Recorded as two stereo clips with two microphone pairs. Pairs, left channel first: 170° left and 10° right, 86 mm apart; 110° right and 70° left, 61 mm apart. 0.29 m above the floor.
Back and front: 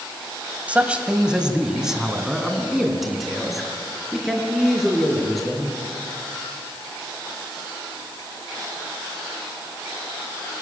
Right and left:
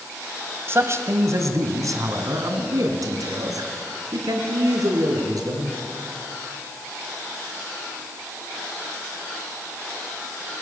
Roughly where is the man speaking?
Ahead left.